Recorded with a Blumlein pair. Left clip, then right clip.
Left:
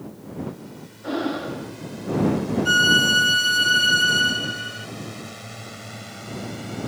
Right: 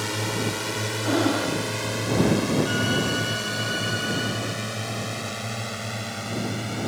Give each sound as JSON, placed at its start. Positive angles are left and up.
{"t": 0.0, "sound": "a drone", "azimuth_deg": -45}
{"t": 1.0, "sound": "breathing", "azimuth_deg": -10}
{"t": 2.6, "sound": "a violin", "azimuth_deg": 60}